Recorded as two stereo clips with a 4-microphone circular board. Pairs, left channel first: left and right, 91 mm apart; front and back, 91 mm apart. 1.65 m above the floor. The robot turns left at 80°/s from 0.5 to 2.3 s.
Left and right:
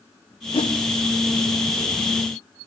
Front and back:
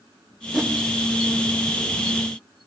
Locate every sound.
0.5 s a whoosh: 100° left, 1.3 m; by 0.8 s 80° left, 1.3 m